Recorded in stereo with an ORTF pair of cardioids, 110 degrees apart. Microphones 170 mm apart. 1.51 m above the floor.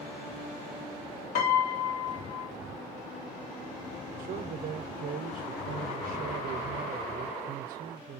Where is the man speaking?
55° right, 1.0 m.